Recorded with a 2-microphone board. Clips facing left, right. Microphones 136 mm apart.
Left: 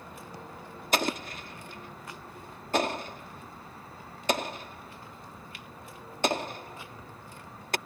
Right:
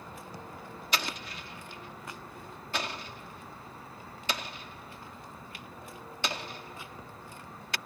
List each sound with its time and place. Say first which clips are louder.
0.9 s an explosion: left 7 dB; 45° left (ahead or behind)